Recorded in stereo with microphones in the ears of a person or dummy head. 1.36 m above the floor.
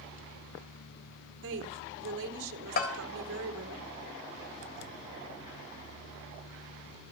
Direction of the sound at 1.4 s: 85° right.